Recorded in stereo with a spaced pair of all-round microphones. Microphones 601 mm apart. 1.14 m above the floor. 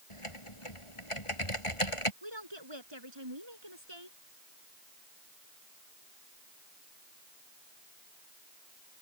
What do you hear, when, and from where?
0.1 s typing on a keyboard: 55° left (ahead or behind)
2.2 s a woman speaking: 45° right (ahead or behind)